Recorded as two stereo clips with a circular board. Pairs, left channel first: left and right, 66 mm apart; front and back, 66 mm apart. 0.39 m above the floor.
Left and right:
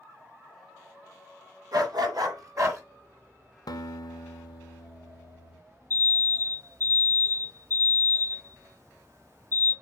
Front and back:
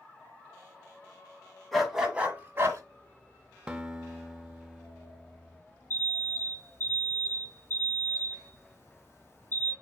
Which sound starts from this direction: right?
A dog barking, at 1.7 s.